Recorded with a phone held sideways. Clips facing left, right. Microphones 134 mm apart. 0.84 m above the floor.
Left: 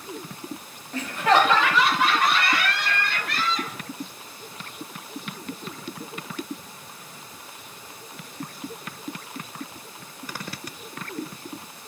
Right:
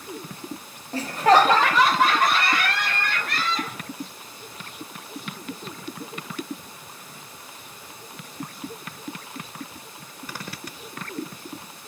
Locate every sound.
0.9 s laughter: 35° right (ahead or behind), 0.7 m; by 3.8 s 50° right (ahead or behind), 2.5 m